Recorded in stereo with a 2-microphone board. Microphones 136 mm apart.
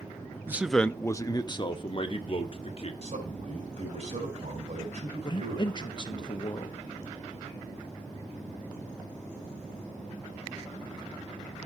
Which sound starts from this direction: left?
A man speaking, at 5.2 s.